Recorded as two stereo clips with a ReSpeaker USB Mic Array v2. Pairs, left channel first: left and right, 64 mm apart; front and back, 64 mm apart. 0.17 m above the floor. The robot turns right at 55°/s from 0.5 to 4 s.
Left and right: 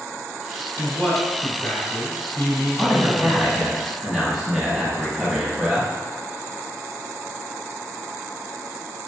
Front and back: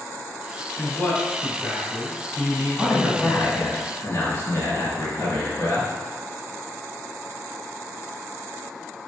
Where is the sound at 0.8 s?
10° right, 1.1 m; by 3.4 s 135° left, 1.1 m.